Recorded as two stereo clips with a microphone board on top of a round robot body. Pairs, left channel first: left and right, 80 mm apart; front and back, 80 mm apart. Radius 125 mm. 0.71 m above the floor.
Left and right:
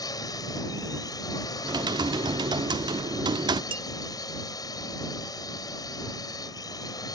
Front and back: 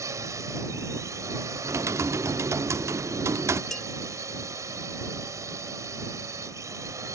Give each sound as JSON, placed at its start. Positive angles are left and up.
{"t": 0.0, "sound": "a drone", "azimuth_deg": 130}
{"t": 1.6, "sound": "typing on a keyboard", "azimuth_deg": -125}
{"t": 3.7, "sound": "dishes clattering", "azimuth_deg": -90}